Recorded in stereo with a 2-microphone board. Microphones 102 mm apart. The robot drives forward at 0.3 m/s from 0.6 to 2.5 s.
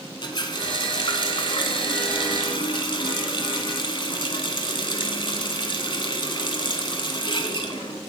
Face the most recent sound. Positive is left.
turn(degrees=50)  # may be behind; listen again after turning